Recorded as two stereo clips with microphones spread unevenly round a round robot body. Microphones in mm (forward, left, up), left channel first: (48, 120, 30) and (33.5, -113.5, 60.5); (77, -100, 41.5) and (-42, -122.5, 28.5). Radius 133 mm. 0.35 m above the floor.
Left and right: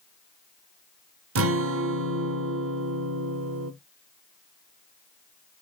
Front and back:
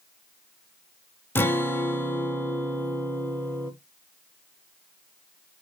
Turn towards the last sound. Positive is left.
turn(degrees=-65)